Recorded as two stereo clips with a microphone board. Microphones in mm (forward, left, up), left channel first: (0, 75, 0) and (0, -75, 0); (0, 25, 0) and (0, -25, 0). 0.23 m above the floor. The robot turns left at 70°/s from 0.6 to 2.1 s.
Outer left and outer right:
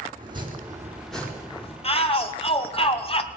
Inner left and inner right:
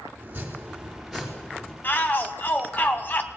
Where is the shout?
40° left (ahead or behind), 2 m.